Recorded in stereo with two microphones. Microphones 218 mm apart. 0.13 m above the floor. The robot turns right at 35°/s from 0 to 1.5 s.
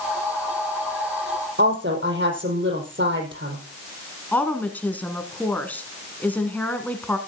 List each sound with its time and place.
1.6 s a woman speaking: 60° right (ahead or behind), 4.5 m
4.3 s a woman speaking: 5° left (ahead or behind), 1.5 m